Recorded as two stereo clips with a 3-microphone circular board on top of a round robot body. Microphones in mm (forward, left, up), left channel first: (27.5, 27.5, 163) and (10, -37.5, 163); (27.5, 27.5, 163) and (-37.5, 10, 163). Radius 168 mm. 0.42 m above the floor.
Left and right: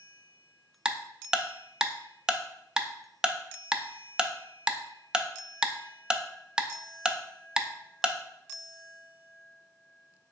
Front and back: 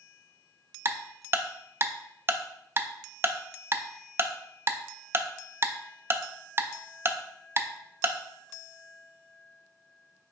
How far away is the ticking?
About 0.6 m.